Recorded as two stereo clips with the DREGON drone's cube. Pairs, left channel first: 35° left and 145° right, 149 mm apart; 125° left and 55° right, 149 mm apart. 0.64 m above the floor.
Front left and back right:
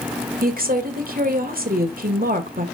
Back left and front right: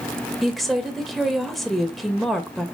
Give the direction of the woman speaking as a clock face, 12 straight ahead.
5 o'clock.